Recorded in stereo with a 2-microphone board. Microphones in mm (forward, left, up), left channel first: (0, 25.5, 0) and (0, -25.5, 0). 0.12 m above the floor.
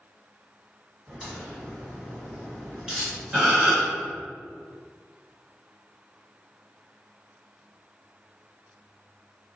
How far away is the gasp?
About 1.6 m.